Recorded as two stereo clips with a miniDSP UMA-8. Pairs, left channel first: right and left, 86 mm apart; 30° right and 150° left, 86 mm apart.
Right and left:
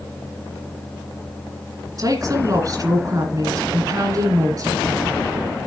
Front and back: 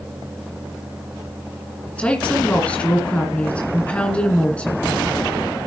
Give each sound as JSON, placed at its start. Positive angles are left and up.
{"t": 2.0, "sound": "a woman speaking", "azimuth_deg": 45, "distance_m": 2.0}